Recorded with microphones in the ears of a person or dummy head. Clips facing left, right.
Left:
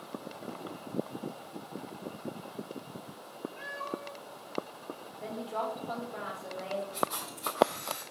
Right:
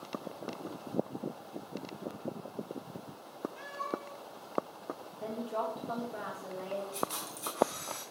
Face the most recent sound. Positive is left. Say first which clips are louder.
# left 3 dB
turn(degrees=-50)  # may be behind; listen again after turning